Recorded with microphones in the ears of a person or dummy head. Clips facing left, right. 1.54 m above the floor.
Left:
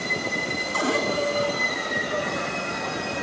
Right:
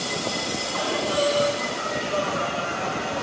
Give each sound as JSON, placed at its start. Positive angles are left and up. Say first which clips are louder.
{"t": 0.7, "sound": "a cupboard door", "louder": "left 3 dB", "side_deg": 50, "distance_m": 2.0}